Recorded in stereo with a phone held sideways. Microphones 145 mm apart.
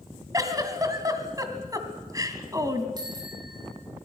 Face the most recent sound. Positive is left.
turn(degrees=-30)  # may be behind; listen again after turning